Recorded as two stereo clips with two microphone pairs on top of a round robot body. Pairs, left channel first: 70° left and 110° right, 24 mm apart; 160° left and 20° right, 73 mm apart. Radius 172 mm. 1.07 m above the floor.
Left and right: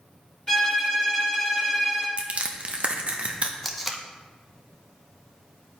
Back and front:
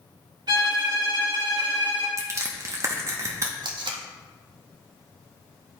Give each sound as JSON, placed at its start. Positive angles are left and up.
{"t": 0.5, "sound": "a violin", "azimuth_deg": 5, "distance_m": 2.5}
{"t": 2.2, "sound": "crushing", "azimuth_deg": -70, "distance_m": 0.7}
{"t": 3.6, "sound": "tape being pulled", "azimuth_deg": -15, "distance_m": 0.6}